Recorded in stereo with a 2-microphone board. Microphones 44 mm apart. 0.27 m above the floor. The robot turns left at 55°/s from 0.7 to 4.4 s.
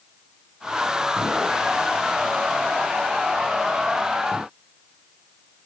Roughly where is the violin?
No violin in this recording.